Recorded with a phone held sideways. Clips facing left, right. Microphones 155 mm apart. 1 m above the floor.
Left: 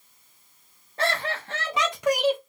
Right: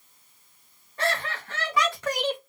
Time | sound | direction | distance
1.0 | laughter | 35° left (ahead or behind) | 1.1 m